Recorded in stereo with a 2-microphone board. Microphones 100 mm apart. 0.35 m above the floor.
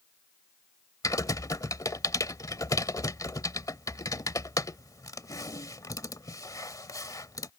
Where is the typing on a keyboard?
35° left (ahead or behind).